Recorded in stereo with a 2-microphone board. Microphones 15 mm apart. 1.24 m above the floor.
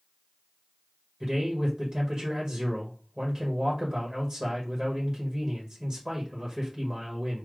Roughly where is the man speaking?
Right.